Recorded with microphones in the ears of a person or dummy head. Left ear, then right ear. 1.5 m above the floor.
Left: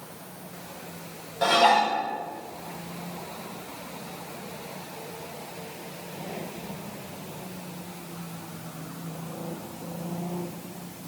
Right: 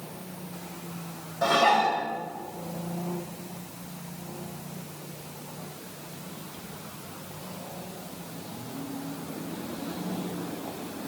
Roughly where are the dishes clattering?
Left.